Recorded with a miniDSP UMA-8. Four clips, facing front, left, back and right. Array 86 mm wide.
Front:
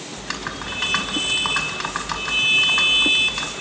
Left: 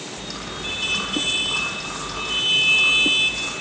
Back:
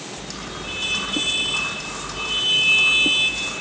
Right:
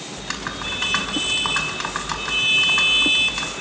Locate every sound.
0.2 s typing on a keyboard: 40° right, 4.5 m